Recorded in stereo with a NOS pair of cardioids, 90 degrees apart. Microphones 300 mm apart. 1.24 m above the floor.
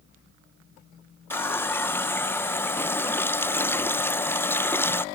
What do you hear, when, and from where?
1.3 s a running tap: 10° left, 0.5 m